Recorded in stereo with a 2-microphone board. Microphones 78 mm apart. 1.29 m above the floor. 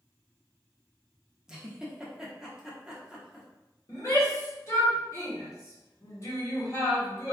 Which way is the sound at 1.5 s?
5° right (ahead or behind).